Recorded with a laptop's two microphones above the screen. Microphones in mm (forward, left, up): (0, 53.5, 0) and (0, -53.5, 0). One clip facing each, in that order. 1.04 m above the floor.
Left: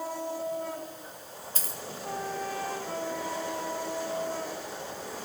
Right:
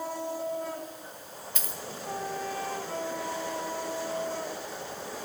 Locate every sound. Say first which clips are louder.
1.6 s a dropped coin: even; 35° left (ahead or behind), 0.6 m